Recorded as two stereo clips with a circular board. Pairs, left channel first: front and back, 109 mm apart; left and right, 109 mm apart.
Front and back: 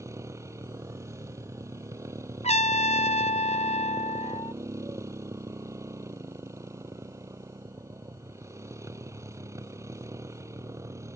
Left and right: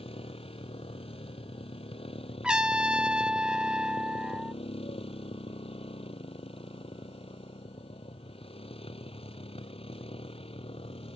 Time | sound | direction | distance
0.0 | a motorcycle | 115° left | ?
2.4 | a trumpet | 10° right | ?